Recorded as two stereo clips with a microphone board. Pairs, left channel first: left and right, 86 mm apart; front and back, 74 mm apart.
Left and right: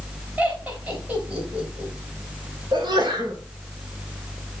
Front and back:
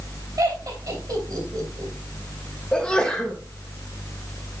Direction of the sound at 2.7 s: 75° right.